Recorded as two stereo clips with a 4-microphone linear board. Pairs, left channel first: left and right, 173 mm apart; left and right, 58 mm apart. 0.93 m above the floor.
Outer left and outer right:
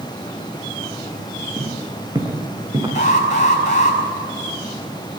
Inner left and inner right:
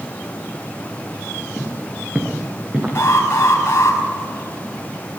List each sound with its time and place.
1.6 s footsteps: 25° right (ahead or behind), 4 m
3.0 s an alarm: 45° left (ahead or behind), 5.5 m